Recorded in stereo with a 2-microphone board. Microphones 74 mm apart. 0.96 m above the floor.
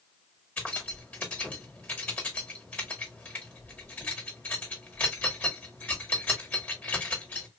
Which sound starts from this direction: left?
Keys jangling, at 0.6 s.